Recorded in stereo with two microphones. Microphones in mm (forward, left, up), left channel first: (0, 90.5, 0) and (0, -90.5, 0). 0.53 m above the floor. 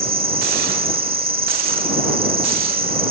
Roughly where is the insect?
Right.